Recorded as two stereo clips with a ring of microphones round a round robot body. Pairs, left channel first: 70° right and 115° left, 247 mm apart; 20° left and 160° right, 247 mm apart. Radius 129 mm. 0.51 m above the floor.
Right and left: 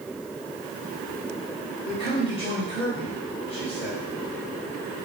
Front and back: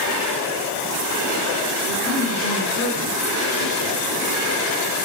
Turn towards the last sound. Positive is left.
turn(degrees=0)